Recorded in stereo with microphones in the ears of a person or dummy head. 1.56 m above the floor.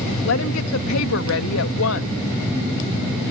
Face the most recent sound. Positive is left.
turn(degrees=75)  # may be behind; listen again after turning